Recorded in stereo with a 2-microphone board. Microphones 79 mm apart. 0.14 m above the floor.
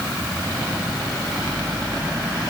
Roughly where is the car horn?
I don't hear a car horn.